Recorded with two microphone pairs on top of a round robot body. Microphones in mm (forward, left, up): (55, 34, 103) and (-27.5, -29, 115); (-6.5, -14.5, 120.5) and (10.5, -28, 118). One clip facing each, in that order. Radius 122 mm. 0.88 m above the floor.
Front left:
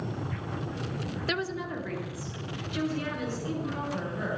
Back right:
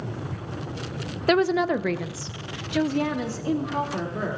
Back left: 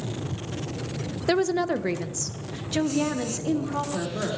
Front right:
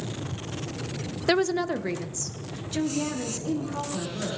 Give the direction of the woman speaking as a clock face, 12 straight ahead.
3 o'clock.